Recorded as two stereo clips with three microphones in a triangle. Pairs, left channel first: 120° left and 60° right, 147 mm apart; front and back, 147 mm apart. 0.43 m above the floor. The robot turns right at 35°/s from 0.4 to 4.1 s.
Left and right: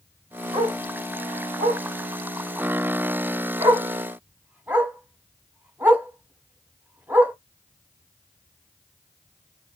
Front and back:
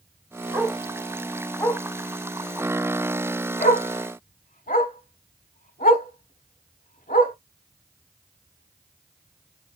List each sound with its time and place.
0.5 s a dog barking: 110° right, 0.8 m; by 7.3 s 15° left, 0.8 m